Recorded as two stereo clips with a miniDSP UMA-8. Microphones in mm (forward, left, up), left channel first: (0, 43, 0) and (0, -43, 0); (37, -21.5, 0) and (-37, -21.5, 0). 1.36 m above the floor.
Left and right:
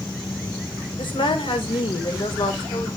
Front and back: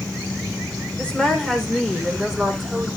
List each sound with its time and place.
1.0 s a woman speaking: 75° left, 4 m; by 2.9 s 95° left, 4 m